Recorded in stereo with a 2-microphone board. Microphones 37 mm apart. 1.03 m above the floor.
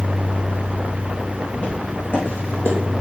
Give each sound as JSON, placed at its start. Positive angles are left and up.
{"t": 1.6, "sound": "footsteps", "side_deg": 75, "distance_m": 3.5}